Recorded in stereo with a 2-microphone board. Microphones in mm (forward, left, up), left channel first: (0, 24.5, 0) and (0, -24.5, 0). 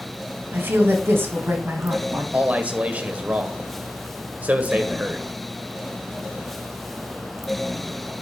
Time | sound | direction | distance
0.5 | a woman speaking | 55° right (ahead or behind) | 2.5 m
2.3 | a man speaking | 35° right (ahead or behind) | 1.4 m